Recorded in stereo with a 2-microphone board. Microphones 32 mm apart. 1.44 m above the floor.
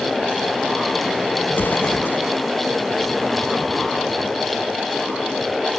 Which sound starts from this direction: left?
An explosion, at 1.5 s.